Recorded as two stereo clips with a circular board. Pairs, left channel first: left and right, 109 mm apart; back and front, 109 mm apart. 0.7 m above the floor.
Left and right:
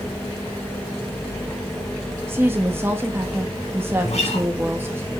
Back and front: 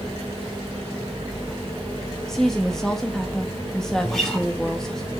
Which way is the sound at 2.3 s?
100° right.